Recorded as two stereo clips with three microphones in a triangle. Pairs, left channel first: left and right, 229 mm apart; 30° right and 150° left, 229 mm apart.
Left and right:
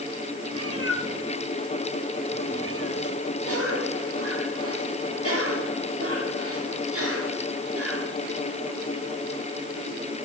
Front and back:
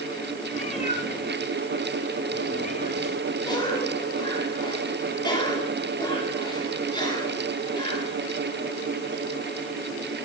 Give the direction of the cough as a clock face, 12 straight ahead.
3 o'clock.